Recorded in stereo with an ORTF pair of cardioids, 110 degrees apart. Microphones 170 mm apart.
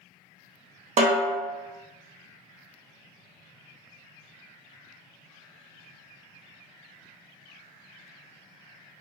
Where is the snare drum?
40° right, 1.1 m.